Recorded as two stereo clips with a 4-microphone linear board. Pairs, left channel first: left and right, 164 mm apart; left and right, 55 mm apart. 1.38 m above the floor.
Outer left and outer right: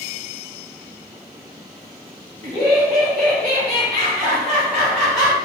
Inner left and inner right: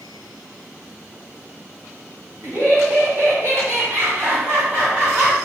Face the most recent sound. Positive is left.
turn(degrees=-20)  # may be behind; listen again after turning